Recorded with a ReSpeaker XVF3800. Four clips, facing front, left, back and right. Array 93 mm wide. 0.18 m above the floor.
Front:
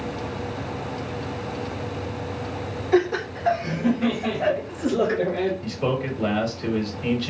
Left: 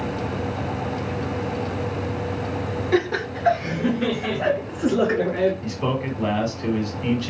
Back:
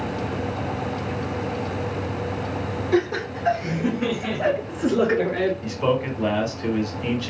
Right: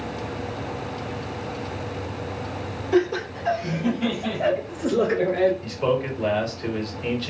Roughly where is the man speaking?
Behind left.